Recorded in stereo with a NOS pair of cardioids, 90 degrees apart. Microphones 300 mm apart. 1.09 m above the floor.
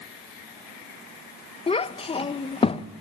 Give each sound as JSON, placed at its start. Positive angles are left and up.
{"t": 1.7, "sound": "a child speaking", "azimuth_deg": 20, "distance_m": 0.6}